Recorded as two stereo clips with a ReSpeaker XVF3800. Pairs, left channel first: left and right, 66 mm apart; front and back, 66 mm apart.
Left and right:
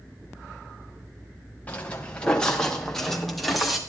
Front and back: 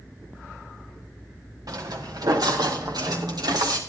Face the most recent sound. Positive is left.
turn(degrees=-175)